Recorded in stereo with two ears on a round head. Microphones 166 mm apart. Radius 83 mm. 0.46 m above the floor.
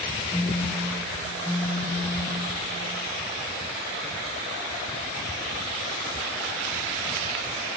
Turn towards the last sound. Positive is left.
turn(degrees=5)  # may be behind; listen again after turning